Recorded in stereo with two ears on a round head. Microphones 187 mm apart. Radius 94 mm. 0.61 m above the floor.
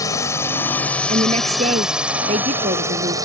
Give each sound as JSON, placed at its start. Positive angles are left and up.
{"t": 0.0, "sound": "a drone", "side_deg": 15}
{"t": 1.1, "sound": "a woman speaking", "side_deg": -30}